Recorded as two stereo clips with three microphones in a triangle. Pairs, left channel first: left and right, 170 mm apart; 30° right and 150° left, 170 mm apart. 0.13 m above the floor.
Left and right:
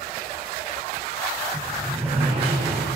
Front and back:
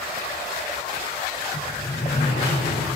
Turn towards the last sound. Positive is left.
turn(degrees=-35)